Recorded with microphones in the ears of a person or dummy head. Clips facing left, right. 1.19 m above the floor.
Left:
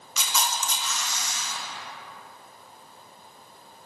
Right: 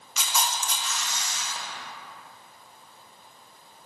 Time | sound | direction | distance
0.2 | a camera shutter | 85° left | 1.2 m